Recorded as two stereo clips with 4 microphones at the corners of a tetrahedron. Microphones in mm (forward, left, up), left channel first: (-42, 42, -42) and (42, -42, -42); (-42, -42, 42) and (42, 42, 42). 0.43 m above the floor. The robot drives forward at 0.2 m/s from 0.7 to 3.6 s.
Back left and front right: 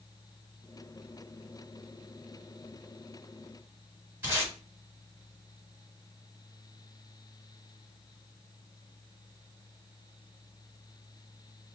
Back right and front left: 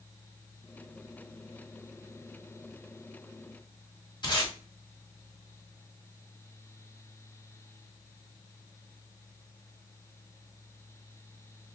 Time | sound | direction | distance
4.2 | tape being pulled | 110° right | 1.5 m